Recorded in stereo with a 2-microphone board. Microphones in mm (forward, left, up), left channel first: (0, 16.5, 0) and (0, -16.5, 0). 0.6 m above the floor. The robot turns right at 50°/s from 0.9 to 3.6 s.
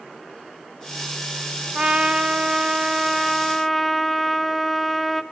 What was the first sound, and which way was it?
A trumpet, 90° right.